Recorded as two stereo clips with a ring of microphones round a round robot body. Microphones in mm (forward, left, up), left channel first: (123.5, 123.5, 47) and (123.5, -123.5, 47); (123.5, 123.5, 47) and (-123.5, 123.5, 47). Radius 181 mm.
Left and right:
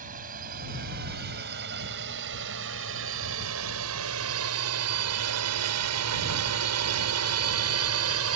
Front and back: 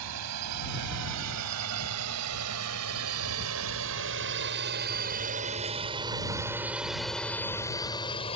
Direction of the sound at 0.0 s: 160° right.